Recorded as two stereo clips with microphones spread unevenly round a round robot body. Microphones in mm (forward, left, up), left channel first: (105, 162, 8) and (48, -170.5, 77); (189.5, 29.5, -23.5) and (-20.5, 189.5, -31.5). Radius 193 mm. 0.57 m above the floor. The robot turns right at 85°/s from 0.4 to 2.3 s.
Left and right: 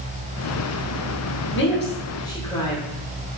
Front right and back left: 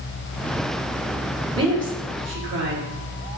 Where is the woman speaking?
75° left, 0.9 m; by 2.8 s 140° left, 0.9 m.